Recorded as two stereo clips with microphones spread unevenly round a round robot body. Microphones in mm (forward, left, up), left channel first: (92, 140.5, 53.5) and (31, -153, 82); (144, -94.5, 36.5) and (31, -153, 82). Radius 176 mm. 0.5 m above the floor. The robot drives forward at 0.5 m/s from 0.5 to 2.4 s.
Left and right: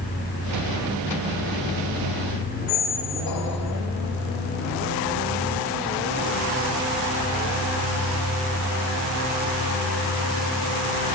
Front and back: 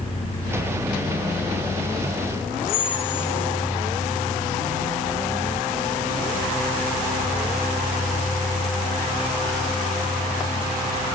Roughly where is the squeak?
Ahead left.